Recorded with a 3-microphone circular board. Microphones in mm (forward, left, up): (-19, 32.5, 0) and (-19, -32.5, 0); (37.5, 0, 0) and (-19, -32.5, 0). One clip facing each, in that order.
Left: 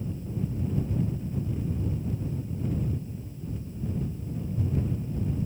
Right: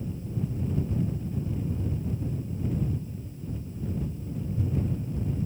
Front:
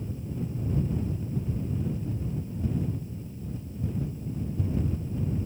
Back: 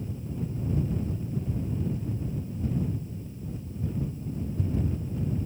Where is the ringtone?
I don't hear a ringtone.